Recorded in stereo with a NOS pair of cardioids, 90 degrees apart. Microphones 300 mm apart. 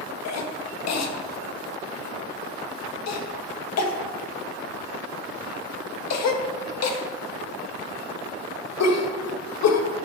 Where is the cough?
60° left, 1.6 m.